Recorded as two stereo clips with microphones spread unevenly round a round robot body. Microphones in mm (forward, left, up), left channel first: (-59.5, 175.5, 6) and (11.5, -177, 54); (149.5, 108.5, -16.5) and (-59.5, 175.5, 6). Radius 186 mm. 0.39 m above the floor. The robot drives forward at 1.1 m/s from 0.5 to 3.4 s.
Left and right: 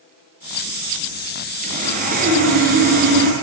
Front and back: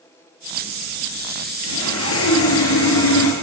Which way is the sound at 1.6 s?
10° right.